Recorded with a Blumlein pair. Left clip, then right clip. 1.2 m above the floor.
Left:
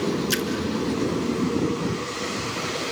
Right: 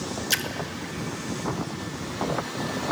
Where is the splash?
5° right, 1.3 m.